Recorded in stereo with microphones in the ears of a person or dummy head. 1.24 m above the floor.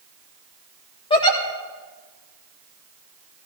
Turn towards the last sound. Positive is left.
turn(degrees=25)  # may be behind; listen again after turning